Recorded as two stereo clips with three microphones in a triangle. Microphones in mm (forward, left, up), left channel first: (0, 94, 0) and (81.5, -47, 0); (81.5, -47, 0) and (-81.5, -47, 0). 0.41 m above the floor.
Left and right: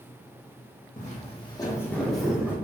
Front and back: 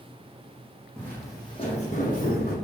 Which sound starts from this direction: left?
Footsteps, at 1.0 s.